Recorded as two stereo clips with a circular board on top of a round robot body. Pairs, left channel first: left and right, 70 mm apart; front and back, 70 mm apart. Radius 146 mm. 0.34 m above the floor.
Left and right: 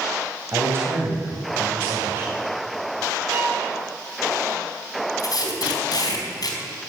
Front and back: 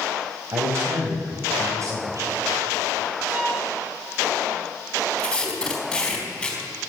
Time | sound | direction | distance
0.5 | a man speaking | 140° right | 3 m
3.3 | a violin | 125° right | 5.5 m
5.2 | tape being pulled | 80° left | 4 m